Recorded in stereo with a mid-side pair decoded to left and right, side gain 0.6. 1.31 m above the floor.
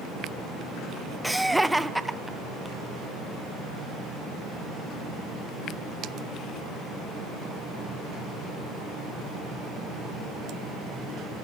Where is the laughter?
5° right, 0.6 m.